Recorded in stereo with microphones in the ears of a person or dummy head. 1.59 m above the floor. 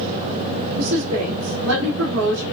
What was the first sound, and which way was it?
A woman speaking, 85° right.